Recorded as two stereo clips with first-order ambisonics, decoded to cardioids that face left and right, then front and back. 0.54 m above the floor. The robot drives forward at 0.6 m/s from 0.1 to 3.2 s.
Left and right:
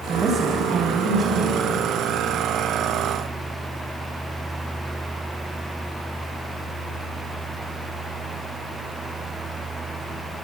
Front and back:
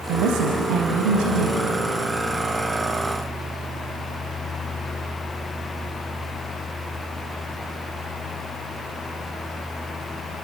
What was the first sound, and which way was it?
A woman speaking, 160° right.